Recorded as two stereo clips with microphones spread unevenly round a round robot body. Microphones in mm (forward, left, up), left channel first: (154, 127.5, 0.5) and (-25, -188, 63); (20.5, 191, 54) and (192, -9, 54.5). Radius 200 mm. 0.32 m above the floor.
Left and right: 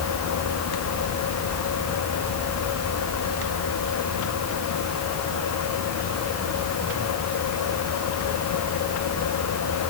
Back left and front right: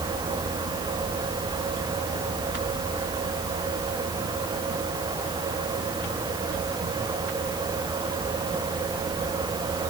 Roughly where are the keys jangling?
No keys jangling in this recording.